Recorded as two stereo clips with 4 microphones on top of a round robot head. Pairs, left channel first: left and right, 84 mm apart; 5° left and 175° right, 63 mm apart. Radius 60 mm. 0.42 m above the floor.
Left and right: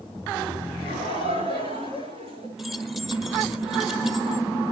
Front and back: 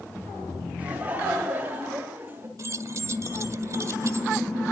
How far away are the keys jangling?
About 1.4 m.